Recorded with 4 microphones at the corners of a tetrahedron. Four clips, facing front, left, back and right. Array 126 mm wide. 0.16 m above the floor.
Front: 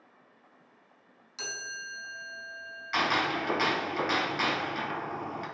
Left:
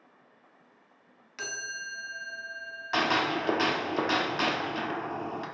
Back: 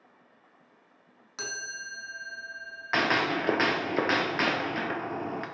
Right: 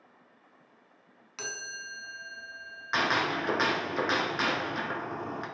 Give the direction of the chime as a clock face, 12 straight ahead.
6 o'clock.